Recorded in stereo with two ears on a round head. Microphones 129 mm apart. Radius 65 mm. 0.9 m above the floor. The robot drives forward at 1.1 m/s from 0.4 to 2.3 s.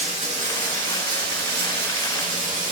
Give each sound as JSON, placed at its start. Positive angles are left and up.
{"t": 0.0, "sound": "running water", "side_deg": -50, "distance_m": 2.0}